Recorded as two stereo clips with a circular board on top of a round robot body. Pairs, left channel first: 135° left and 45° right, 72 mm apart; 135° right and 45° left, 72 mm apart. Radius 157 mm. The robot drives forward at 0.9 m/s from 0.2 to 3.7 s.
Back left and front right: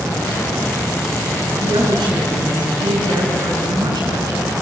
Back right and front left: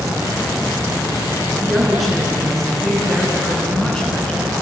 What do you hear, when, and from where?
1.5 s a woman speaking: 45° right, 7 m; by 4.5 s 60° right, 6 m